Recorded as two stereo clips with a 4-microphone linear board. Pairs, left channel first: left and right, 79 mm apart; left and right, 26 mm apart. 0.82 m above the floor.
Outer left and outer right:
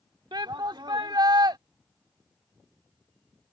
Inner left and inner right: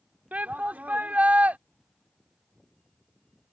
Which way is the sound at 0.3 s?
70° right (ahead or behind).